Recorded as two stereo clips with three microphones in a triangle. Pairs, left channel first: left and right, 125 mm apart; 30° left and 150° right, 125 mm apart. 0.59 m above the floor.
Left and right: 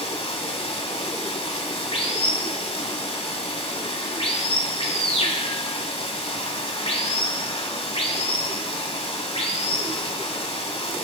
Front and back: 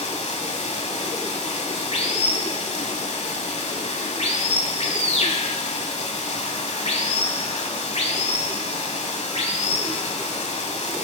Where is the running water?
55° left, 1.0 m.